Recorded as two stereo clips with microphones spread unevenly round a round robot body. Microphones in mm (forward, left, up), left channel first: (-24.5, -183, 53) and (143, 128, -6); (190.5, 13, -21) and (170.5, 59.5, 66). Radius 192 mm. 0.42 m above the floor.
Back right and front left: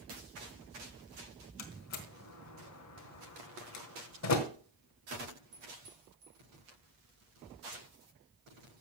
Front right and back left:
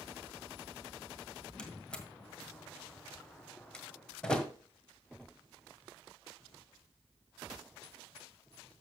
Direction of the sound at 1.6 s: 70° right.